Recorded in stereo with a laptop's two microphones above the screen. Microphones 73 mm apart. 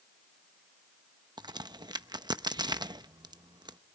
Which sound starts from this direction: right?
A crack, at 1.4 s.